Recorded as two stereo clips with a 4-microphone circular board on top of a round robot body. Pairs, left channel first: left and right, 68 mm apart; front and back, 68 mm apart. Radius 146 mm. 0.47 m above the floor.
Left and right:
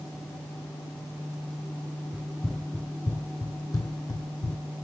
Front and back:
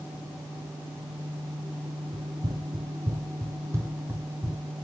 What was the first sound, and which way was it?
Running footsteps, 165° right.